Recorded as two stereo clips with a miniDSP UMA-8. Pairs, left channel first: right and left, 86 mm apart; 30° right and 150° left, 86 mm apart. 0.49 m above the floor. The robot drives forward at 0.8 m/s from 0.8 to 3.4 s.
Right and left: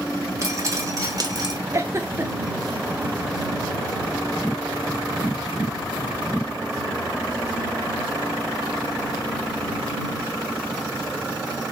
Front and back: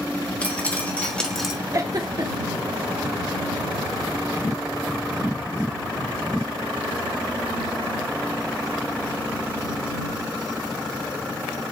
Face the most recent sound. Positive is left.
turn(degrees=165)